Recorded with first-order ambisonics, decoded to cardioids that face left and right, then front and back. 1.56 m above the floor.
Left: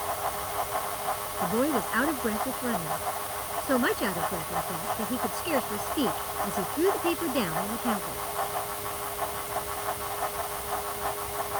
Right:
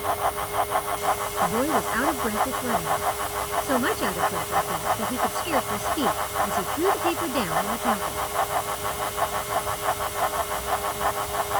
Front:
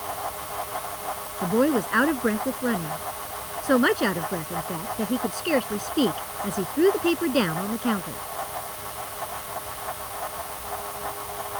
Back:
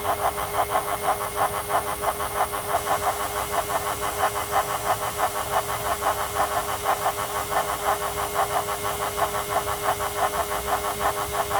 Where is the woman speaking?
Straight ahead.